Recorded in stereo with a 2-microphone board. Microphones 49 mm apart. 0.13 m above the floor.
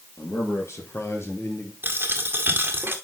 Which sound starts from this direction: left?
A man speaking, at 0.2 s.